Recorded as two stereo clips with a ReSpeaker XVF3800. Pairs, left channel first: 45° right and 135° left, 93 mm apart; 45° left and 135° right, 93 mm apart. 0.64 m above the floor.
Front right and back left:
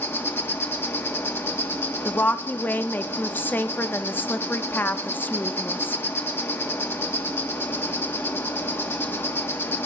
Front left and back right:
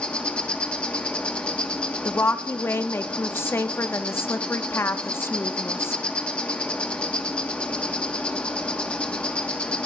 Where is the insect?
20° right, 1.6 m.